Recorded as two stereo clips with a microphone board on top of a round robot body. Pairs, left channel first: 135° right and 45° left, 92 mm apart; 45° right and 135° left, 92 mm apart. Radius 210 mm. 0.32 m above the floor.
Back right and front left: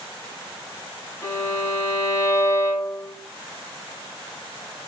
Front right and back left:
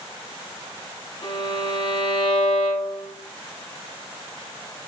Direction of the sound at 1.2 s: 75° right.